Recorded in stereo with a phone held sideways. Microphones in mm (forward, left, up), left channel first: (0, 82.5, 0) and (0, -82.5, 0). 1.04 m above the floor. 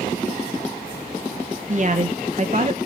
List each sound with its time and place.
1.7 s a woman speaking: 50° right (ahead or behind), 1.1 m